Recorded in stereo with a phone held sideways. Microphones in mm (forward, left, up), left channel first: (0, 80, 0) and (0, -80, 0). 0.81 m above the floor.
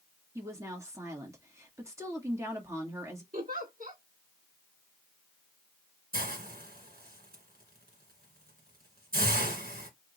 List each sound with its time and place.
0.3 s a woman speaking: 20° right (ahead or behind), 1.5 m
3.3 s a giggle: 60° right (ahead or behind), 1.9 m
6.1 s a hiss: 70° right (ahead or behind), 1.9 m